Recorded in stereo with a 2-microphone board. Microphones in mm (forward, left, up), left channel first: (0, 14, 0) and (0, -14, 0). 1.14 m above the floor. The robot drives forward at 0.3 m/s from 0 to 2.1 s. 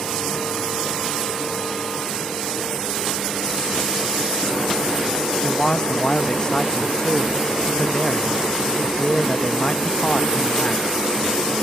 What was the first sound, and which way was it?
A man speaking, 35° left (ahead or behind).